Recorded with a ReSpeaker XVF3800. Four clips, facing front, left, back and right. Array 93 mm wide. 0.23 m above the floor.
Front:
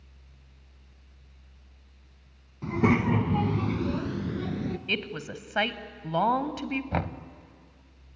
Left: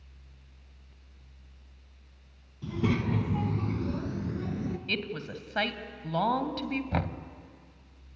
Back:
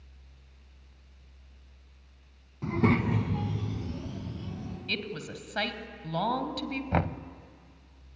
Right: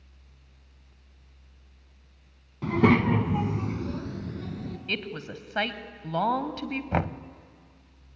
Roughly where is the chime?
I don't hear a chime.